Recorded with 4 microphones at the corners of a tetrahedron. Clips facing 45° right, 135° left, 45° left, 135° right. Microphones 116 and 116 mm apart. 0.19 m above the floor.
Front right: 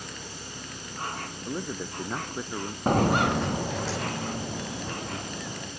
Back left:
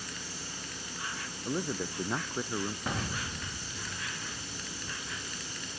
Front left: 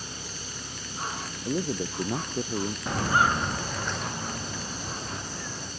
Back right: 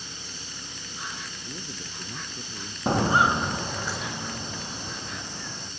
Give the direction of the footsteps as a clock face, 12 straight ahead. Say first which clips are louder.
Front right 14 dB, back right 4 dB; 3 o'clock.